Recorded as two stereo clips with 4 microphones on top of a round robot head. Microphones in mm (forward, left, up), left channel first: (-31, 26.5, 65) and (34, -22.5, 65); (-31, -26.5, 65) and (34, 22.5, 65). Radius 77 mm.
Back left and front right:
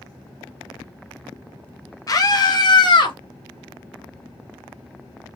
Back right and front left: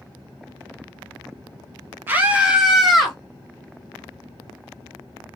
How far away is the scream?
About 2.5 m.